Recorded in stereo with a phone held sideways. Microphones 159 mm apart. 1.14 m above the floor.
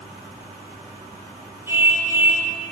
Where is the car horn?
15° right (ahead or behind), 8.5 m.